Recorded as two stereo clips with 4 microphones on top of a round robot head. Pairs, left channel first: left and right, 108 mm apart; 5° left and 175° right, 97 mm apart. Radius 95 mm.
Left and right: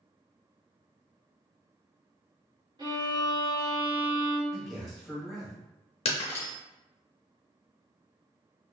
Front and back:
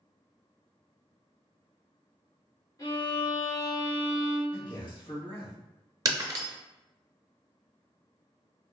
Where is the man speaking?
Straight ahead, 1.4 m.